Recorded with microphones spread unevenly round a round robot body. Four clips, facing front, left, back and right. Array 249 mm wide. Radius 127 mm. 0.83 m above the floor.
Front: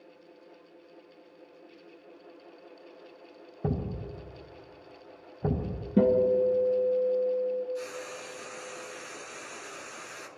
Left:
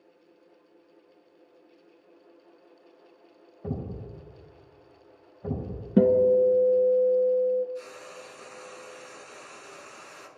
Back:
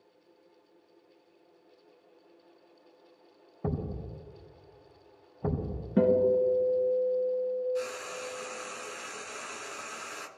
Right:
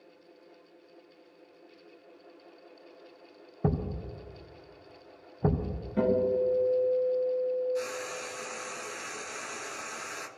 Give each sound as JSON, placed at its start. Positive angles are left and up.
{"t": 3.6, "sound": "a thud", "azimuth_deg": -80, "distance_m": 3.5}
{"t": 6.0, "sound": "a guitar", "azimuth_deg": 85, "distance_m": 2.5}
{"t": 7.8, "sound": "frying", "azimuth_deg": -120, "distance_m": 1.6}